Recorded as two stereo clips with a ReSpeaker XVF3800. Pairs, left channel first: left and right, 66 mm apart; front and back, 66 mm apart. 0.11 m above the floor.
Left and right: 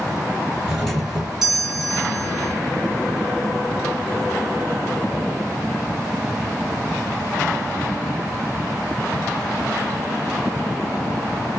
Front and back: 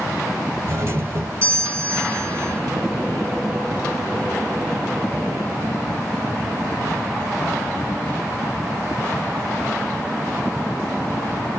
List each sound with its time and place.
0.7 s a doorbell: 175° right, 2 m